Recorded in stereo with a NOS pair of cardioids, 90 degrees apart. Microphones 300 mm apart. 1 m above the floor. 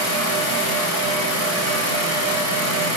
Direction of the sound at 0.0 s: 55° right.